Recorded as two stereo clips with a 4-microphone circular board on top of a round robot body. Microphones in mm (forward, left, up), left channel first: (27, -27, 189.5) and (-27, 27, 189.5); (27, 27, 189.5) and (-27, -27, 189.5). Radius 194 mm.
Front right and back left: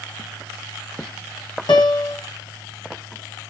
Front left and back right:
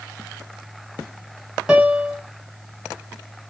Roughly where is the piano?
Ahead right.